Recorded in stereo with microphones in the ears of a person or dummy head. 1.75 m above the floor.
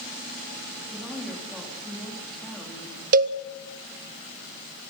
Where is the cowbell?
45° right (ahead or behind), 0.9 m.